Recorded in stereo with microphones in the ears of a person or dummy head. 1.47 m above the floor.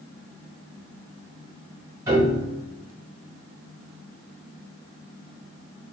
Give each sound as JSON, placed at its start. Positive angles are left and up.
{"t": 2.1, "sound": "a piano", "side_deg": -25, "distance_m": 1.5}